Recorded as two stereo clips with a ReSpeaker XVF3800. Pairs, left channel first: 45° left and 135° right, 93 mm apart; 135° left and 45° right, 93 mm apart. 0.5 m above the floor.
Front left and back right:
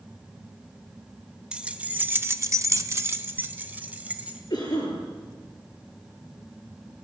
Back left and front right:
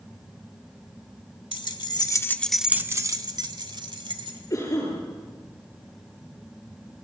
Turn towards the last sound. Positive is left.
turn(degrees=85)